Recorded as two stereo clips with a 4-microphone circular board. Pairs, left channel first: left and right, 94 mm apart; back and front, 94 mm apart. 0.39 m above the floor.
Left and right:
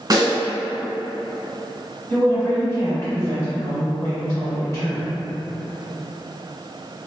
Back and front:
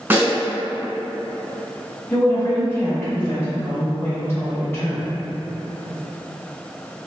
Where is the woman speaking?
125° left, 1.7 m.